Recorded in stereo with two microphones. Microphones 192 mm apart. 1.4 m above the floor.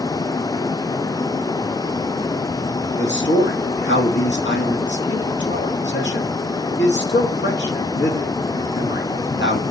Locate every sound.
3.0 s a man speaking: 70° left (ahead or behind), 2 m